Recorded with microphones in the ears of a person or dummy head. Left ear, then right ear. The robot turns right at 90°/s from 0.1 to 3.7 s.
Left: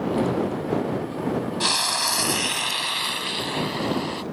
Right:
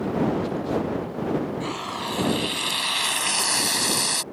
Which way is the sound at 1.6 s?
65° left.